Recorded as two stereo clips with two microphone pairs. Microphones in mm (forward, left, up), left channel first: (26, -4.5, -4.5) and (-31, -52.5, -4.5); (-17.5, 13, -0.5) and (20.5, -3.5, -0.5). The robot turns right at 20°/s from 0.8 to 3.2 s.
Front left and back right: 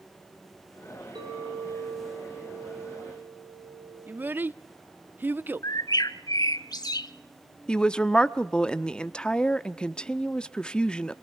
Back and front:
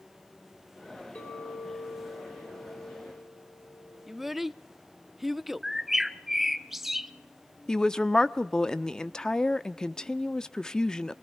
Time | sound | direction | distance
1.1 | a clink | 155° right | 6.5 m
4.1 | a child speaking | 105° right | 0.6 m
5.6 | a bird | 60° left | 0.7 m
7.7 | a woman speaking | 105° left | 0.7 m